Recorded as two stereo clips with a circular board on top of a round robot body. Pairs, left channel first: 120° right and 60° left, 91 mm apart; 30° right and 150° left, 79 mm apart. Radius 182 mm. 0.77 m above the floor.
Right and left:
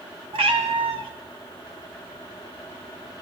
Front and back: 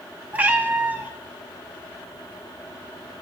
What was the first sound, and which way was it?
A cat meowing, 80° left.